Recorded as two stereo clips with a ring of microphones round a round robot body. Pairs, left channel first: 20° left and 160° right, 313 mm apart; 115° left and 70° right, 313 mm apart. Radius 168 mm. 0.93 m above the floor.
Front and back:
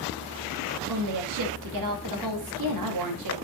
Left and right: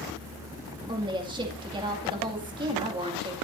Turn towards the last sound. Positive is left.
turn(degrees=-140)